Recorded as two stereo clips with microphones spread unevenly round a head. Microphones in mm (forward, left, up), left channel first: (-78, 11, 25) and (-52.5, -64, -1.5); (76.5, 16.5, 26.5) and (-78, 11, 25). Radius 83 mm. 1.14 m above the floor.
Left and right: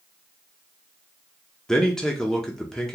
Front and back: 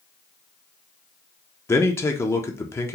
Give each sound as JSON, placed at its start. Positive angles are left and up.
{"t": 1.7, "sound": "a man speaking", "azimuth_deg": -30, "distance_m": 0.6}